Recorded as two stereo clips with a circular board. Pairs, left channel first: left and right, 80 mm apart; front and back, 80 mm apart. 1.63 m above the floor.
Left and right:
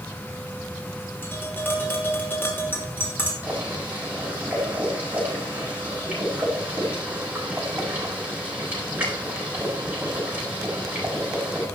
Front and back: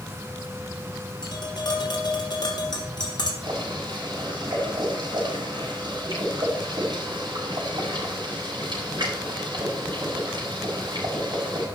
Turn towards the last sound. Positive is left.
turn(degrees=-155)